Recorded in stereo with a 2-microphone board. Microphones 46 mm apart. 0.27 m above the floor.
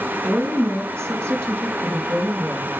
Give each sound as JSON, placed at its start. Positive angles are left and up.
{"t": 0.2, "sound": "a woman speaking", "side_deg": -65, "distance_m": 4.0}